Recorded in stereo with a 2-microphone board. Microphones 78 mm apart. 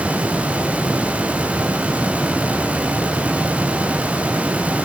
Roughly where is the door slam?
I don't hear a door slam.